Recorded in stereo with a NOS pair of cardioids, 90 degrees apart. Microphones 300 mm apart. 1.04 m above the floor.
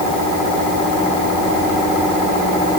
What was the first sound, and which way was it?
Only background noise.